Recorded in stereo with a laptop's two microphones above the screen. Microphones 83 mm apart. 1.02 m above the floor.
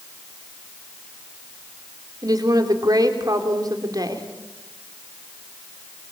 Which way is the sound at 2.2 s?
50° right (ahead or behind).